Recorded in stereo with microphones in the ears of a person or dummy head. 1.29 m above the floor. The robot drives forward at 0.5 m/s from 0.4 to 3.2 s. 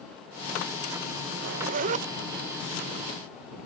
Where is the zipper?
55° right (ahead or behind); by 2.1 s 35° right (ahead or behind).